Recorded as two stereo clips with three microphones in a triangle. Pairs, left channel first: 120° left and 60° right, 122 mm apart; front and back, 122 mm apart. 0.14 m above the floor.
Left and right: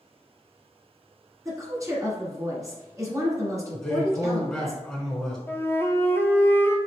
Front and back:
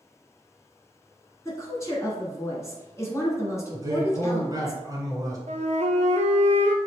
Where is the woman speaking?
35° right, 1.3 m.